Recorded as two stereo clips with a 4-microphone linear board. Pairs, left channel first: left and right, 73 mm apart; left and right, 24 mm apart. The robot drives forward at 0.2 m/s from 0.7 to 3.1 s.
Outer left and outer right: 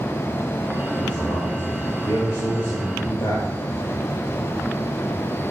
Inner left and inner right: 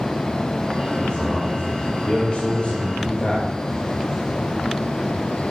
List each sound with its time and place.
0.9 s a man speaking: 80° left, 5.5 m